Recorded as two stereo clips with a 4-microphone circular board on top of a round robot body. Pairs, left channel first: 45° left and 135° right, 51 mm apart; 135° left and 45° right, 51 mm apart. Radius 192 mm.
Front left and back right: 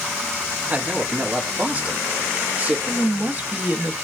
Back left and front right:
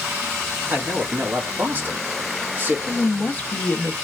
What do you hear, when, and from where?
0.7 s a man speaking: 85° right, 1.6 m
2.9 s a woman speaking: 170° right, 1.3 m